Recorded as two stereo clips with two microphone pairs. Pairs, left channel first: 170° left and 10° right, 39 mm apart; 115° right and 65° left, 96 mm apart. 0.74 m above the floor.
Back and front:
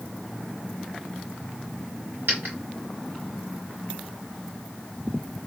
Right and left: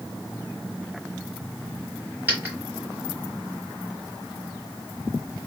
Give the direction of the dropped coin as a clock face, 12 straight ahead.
12 o'clock.